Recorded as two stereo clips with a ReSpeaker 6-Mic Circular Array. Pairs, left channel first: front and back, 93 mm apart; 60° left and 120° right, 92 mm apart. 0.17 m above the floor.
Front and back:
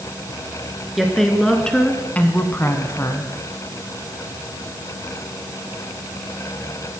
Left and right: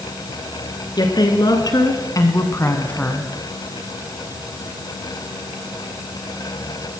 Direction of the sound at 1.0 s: 90° left.